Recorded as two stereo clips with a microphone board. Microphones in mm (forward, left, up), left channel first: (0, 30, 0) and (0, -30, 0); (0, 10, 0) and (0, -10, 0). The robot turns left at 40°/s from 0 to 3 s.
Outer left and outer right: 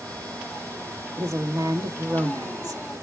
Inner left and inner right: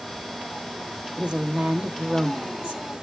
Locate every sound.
1.2 s a woman speaking: 45° right, 1.0 m; by 2.8 s 110° right, 1.0 m